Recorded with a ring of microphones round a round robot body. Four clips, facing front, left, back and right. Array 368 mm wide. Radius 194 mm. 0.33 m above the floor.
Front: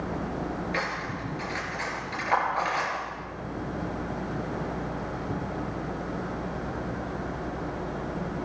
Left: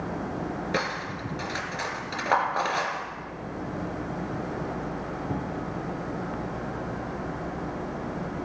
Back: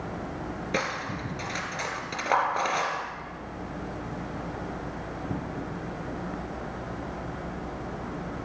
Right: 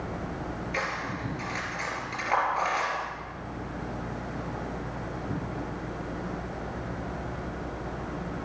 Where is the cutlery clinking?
130° left, 3.5 m.